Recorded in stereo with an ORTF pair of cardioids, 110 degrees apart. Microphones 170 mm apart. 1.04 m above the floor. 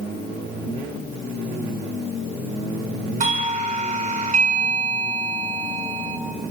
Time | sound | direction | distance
3.2 | a doorbell | 50° right | 6 m